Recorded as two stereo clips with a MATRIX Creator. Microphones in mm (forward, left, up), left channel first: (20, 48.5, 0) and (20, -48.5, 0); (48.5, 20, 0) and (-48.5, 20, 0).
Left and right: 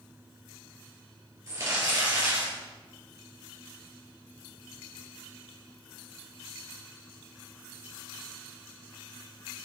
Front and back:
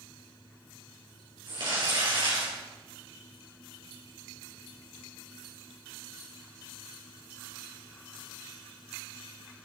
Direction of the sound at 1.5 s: 145° right.